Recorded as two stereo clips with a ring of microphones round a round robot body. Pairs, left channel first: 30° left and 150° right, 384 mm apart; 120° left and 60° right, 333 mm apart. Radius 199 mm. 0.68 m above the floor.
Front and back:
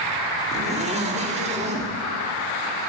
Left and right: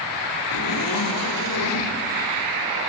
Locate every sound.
0.5 s a zipper: 140° left, 2.5 m